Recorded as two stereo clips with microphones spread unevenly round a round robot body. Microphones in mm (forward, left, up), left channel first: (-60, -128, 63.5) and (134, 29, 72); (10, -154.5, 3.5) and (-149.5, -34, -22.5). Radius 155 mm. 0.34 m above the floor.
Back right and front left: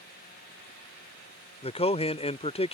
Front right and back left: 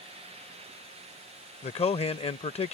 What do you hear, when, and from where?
1.6 s a man speaking: 90° right